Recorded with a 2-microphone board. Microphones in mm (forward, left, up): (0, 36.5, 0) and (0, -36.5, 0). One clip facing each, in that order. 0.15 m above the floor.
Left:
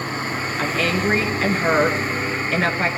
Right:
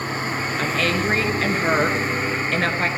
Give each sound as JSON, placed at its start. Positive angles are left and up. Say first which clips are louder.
{"t": 0.6, "sound": "a woman speaking", "louder": "left 1 dB", "side_deg": 5, "distance_m": 1.7}